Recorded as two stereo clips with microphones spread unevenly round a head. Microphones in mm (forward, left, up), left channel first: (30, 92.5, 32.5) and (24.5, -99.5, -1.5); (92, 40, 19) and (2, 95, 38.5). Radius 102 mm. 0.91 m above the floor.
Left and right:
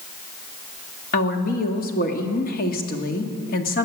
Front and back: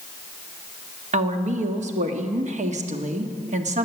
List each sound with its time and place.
1.1 s a woman speaking: 140° left, 1.6 m